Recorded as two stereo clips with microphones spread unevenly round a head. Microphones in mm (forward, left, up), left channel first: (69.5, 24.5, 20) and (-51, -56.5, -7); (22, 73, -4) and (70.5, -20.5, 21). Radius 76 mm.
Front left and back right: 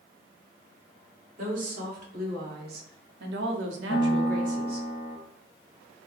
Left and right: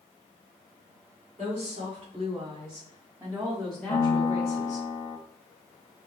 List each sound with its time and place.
1.4 s a woman speaking: 115° right, 2 m; by 4.9 s 145° left, 0.8 m
3.9 s a piano: 70° left, 1.0 m